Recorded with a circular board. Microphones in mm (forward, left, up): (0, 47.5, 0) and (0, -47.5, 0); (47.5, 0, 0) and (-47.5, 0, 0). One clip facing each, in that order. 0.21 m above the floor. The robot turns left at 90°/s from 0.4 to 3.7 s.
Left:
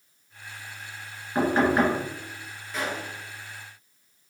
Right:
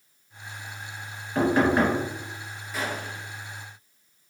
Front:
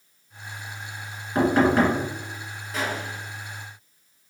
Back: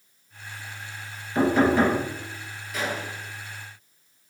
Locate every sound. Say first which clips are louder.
1.4 s knocking: right 1 dB, front 1 dB; 45° left, 1.7 m; by 2.0 s 10° right, 1.7 m
2.7 s a gunshot: even, front 1 dB; 5° right, 1.4 m; by 3.2 s 50° right, 1.4 m